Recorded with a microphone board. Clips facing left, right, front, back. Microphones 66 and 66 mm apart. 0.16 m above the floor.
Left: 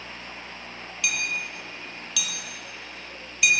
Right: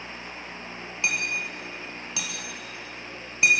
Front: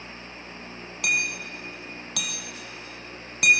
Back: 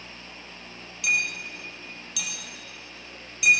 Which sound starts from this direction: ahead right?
Hammering, at 1.0 s.